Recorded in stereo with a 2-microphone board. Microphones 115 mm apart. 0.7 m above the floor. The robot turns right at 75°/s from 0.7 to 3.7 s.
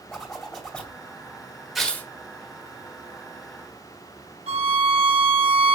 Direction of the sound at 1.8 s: Centre (ahead or behind).